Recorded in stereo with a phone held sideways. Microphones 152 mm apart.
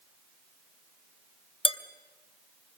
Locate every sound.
1.6 s dishes clattering: 35° left (ahead or behind), 0.8 m